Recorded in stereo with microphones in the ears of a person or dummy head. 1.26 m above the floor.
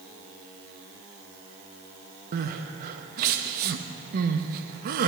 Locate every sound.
2.3 s crying: 55° right (ahead or behind), 0.8 m